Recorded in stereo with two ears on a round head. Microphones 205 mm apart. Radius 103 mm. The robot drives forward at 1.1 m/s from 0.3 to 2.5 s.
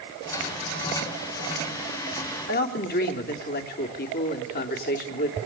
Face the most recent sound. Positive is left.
turn(degrees=45)  # may be behind; listen again after turning